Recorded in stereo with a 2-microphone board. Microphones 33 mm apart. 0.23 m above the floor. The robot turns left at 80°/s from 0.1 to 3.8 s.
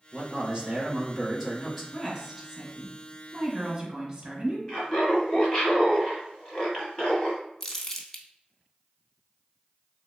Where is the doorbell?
No doorbell in this recording.